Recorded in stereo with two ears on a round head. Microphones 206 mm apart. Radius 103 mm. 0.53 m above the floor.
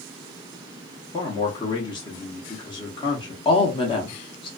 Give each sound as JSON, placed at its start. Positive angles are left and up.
{"t": 1.1, "sound": "a man speaking", "side_deg": 20, "distance_m": 0.7}
{"t": 3.5, "sound": "a woman speaking", "side_deg": 20, "distance_m": 0.7}